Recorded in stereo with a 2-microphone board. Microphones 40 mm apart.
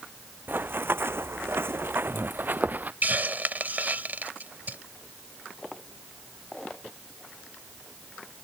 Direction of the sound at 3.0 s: 50° right (ahead or behind).